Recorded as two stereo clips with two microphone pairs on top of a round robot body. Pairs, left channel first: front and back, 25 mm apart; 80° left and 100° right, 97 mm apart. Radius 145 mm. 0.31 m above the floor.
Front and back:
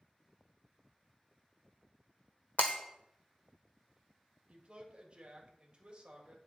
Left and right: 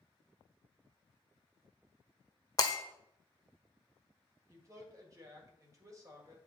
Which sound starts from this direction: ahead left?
Breaking glass, at 2.6 s.